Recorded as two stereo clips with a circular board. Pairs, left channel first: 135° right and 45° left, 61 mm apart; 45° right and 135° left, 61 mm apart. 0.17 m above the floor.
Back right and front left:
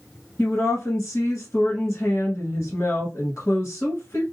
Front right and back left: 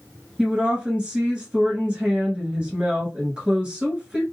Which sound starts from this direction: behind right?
A woman speaking, at 0.4 s.